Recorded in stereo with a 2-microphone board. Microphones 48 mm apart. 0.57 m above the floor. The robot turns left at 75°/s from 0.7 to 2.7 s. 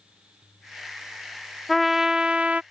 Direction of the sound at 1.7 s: 5° left.